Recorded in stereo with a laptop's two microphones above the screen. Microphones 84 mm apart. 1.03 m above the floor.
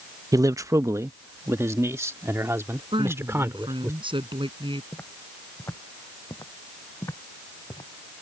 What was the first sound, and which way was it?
A man speaking, 40° right (ahead or behind).